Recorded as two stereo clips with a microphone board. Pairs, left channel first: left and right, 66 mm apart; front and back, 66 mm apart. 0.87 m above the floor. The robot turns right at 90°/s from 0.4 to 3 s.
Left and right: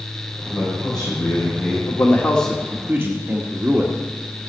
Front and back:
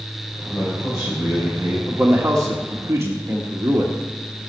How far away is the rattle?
I don't hear a rattle.